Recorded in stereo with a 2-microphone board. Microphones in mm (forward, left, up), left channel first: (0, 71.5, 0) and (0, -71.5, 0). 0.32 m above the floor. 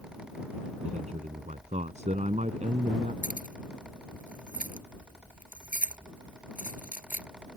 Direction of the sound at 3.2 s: 75° left (ahead or behind).